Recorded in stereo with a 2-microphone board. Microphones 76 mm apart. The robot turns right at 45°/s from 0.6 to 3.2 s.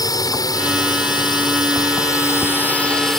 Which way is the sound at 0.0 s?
60° left.